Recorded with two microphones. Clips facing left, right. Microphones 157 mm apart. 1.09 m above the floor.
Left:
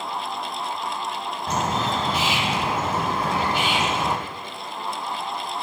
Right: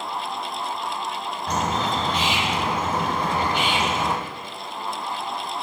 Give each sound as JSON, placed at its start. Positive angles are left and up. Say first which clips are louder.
{"t": 1.5, "sound": "a bird", "louder": "even", "side_deg": 10, "distance_m": 0.8}